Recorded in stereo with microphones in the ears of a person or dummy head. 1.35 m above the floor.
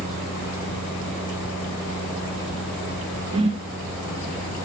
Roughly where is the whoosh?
Right.